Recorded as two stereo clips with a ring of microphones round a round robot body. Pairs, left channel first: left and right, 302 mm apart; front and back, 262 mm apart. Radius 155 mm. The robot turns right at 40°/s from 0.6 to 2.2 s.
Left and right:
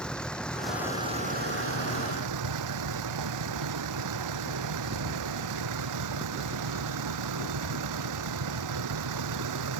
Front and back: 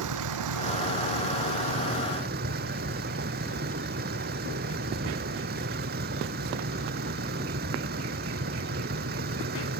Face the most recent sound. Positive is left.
turn(degrees=-120)